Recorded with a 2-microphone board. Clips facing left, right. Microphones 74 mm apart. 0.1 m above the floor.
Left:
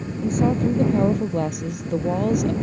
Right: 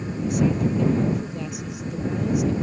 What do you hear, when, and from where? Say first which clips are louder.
0.2 s a woman speaking: left 2 dB; 40° left (ahead or behind); by 2.5 s 60° left (ahead or behind)